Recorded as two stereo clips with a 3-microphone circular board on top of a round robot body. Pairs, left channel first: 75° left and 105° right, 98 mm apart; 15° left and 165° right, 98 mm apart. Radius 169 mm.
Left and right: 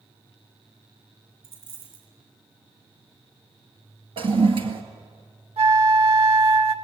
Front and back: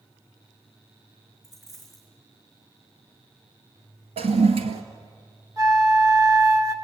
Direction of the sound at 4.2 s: 140° right.